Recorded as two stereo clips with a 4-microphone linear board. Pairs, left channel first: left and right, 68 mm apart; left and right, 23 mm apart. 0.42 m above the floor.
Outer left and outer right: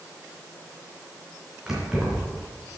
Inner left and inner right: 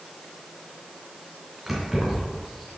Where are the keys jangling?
10° right (ahead or behind), 3.5 m.